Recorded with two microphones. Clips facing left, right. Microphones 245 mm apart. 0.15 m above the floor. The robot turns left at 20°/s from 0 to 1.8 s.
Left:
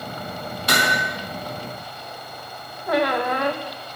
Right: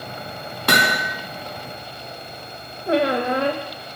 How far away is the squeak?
About 2.5 m.